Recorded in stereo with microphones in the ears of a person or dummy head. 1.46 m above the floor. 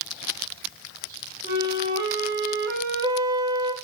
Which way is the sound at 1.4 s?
20° right (ahead or behind).